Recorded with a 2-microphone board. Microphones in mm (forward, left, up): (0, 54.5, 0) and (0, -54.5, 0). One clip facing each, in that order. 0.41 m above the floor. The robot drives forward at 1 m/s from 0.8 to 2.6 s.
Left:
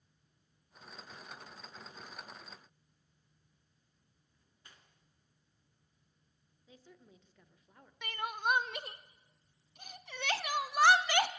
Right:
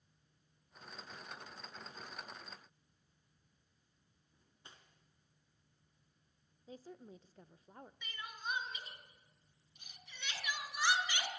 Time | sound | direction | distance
4.3 | cutlery clinking | 25° right (ahead or behind) | 3.5 m
6.7 | a woman speaking | 35° right (ahead or behind) | 1.0 m
8.0 | crying | 70° left (ahead or behind) | 0.9 m